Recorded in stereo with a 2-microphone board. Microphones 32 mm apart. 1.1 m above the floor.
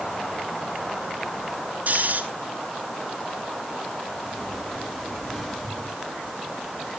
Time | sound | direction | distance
1.9 | snoring | 55° right (ahead or behind) | 2 m
4.2 | a sliding door | 10° left (ahead or behind) | 7 m